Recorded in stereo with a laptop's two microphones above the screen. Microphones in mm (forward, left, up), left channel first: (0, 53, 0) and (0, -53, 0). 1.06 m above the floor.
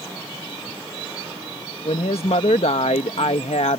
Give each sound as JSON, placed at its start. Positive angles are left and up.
{"t": 1.9, "sound": "a woman speaking", "side_deg": 80}